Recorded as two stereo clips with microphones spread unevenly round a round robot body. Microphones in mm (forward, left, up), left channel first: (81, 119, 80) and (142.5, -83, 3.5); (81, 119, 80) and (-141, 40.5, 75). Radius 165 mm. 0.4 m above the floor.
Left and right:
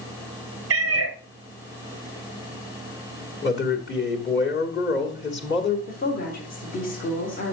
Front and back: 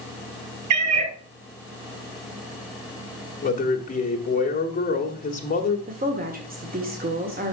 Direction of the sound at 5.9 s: 170° left.